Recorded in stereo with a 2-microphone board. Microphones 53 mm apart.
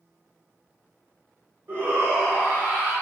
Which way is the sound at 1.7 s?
40° right (ahead or behind).